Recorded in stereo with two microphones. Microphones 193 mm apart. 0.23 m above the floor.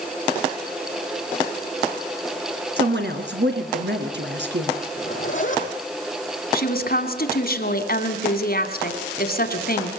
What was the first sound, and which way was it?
A woman speaking, 65° right (ahead or behind).